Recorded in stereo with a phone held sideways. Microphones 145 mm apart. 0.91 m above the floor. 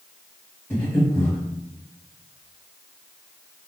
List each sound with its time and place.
0.7 s breathing: 15° left (ahead or behind), 1.5 m